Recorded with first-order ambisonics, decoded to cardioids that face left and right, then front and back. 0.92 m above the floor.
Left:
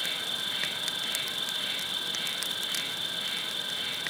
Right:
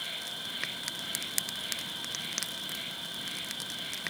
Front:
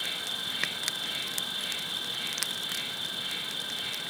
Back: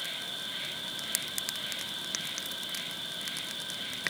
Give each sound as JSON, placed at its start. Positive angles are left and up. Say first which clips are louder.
{"t": 0.0, "sound": "an insect", "louder": "left 6 dB, front 4 dB", "azimuth_deg": 70, "distance_m": 3.5}